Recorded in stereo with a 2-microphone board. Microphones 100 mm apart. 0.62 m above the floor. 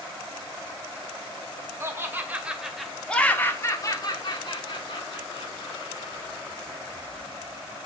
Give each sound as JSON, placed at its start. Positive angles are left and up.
{"t": 1.8, "sound": "laughter", "side_deg": -25, "distance_m": 1.5}